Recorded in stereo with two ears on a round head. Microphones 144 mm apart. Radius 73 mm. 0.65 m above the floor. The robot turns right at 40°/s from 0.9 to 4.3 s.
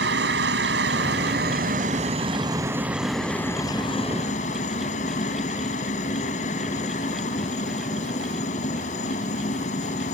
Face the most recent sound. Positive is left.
turn(degrees=50)